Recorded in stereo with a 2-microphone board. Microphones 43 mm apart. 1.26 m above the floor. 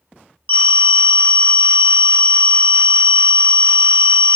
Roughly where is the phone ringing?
Left.